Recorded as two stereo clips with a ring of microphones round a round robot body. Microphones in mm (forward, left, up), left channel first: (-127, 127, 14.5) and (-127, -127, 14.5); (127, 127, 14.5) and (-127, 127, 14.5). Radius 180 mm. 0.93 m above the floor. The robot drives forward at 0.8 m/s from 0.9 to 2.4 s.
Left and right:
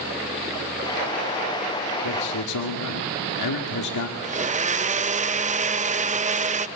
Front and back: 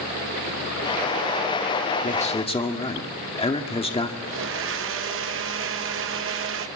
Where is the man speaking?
60° left, 2.0 m; by 4.1 s 70° left, 1.9 m.